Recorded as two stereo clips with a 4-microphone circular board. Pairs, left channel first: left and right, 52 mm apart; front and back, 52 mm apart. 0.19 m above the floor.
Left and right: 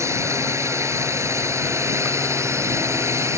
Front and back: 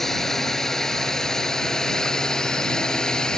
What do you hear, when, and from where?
0.0 s a drone: 85° right; by 3.4 s 75° right